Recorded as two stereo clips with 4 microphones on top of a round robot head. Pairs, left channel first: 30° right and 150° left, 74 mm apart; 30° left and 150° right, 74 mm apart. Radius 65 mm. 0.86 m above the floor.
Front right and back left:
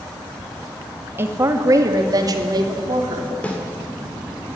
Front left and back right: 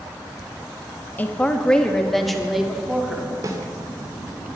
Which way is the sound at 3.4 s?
100° right.